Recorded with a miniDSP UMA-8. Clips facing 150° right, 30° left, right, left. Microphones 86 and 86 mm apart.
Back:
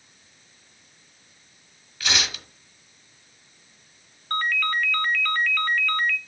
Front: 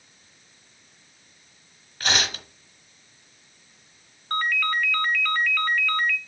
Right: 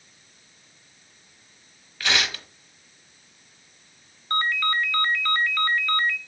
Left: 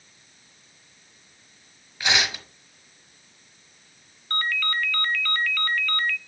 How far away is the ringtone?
About 0.7 m.